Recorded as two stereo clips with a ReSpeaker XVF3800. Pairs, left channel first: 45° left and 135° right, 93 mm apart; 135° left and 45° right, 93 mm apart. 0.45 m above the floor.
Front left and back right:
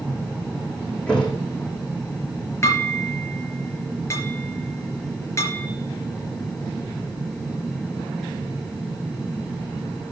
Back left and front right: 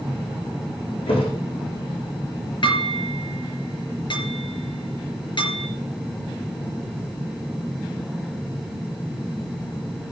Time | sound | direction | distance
1.1 | a thud | 125° left | 6 m
2.6 | dishes clattering | 105° left | 4.5 m